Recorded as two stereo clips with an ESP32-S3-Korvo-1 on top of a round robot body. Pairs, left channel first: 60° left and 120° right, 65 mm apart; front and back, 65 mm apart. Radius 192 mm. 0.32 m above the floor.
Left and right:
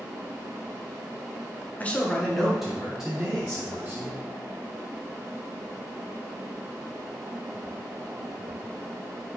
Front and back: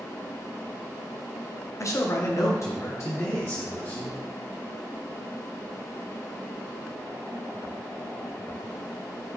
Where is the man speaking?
5° left, 1.0 m; by 4.2 s 50° right, 2 m.